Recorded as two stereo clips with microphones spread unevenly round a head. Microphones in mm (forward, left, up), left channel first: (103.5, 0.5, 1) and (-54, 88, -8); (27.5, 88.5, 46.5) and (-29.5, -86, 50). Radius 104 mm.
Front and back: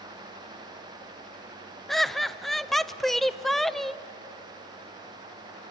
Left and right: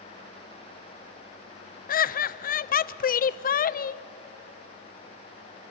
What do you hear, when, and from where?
1.9 s laughter: 60° left, 0.7 m